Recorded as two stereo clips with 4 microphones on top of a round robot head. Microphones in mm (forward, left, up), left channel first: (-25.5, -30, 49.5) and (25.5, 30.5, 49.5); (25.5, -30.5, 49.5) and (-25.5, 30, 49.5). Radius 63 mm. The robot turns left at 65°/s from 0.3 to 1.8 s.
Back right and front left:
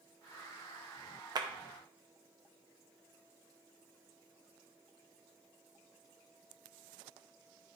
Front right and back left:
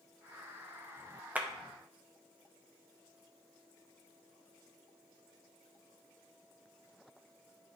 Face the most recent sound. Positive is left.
turn(degrees=35)